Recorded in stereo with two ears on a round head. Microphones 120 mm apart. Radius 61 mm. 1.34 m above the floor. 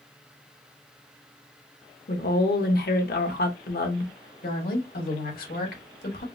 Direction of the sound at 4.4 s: 75° left (ahead or behind).